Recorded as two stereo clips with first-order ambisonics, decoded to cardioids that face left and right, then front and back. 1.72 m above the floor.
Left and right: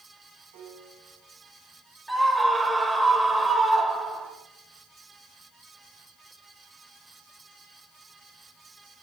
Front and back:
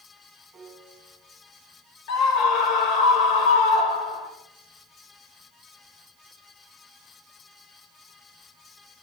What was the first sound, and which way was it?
A piano, 95° right.